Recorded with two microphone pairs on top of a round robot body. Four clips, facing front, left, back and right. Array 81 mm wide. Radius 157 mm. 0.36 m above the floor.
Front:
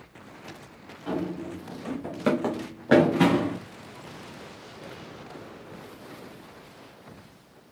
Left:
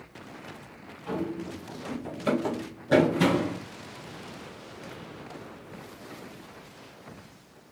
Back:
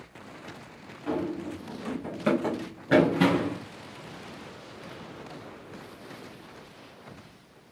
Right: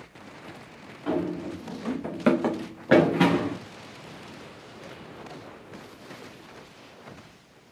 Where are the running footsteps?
80° right, 2 m; by 3.6 s 25° right, 1.8 m.